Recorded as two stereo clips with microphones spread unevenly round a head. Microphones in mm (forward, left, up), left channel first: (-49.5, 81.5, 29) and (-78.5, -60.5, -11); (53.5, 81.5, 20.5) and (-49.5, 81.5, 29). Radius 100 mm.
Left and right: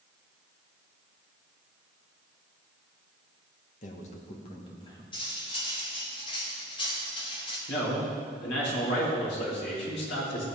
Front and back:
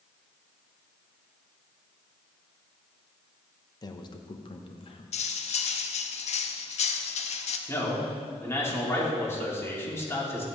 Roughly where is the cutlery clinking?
Ahead.